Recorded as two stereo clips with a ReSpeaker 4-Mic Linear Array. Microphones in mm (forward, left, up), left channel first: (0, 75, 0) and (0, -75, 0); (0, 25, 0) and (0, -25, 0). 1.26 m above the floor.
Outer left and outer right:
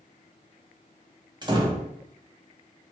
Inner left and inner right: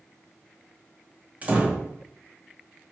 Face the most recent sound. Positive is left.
turn(degrees=-30)  # may be behind; listen again after turning